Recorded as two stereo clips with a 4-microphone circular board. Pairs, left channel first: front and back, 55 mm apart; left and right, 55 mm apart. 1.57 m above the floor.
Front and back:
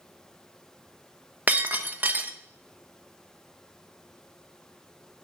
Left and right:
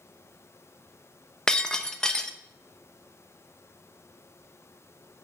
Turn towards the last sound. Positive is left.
turn(degrees=160)